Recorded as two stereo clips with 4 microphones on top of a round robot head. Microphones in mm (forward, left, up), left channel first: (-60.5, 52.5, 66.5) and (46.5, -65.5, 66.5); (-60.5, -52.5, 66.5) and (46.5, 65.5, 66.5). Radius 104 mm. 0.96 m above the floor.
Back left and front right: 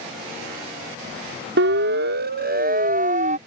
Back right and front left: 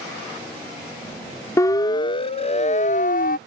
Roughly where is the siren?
Ahead right.